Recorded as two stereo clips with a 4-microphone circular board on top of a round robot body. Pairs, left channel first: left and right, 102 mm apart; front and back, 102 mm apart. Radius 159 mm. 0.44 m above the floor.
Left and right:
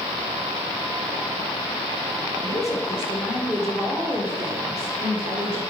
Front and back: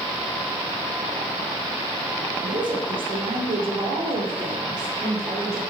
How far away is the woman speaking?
About 2 m.